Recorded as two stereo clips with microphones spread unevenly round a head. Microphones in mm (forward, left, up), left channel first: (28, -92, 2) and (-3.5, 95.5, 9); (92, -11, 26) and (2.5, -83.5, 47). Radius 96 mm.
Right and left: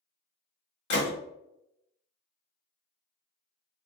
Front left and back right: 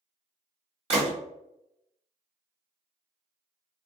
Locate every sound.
0.9 s a gunshot: 115° right, 1.1 m